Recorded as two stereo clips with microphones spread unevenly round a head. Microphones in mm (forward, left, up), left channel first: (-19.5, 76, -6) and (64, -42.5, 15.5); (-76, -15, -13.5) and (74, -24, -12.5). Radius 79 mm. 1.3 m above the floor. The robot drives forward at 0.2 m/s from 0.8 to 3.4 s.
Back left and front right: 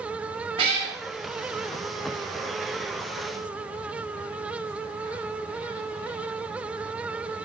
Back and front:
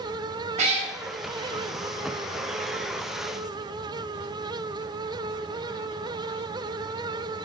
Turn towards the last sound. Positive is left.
turn(degrees=-80)